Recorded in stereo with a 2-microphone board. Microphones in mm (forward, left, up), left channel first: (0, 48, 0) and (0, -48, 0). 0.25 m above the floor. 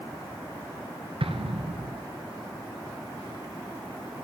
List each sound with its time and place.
1.2 s an explosion: 80° right, 1.3 m